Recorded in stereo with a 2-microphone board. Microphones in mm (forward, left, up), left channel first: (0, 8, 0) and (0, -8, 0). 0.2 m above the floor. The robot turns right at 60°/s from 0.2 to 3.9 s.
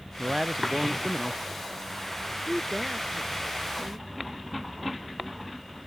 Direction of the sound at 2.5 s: 5° left (ahead or behind).